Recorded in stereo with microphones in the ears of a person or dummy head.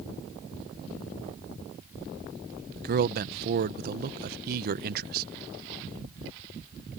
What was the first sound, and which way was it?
A man speaking, 55° right (ahead or behind).